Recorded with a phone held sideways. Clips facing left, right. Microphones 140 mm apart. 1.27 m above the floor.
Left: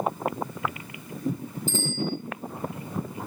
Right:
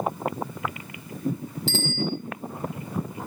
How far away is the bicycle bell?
About 7 m.